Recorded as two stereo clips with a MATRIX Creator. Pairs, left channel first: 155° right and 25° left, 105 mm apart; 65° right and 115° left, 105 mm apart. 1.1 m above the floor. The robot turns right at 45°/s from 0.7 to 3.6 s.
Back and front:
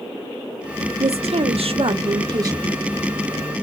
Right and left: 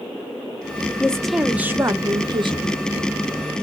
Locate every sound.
1.0 s a woman speaking: 10° left, 0.6 m; by 2.8 s 90° left, 0.6 m